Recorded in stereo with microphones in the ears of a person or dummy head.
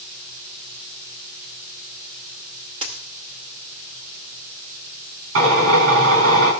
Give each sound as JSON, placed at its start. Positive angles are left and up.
{"t": 2.8, "sound": "a dropped coin", "side_deg": -30, "distance_m": 1.9}
{"t": 5.3, "sound": "a drill", "side_deg": -80, "distance_m": 4.5}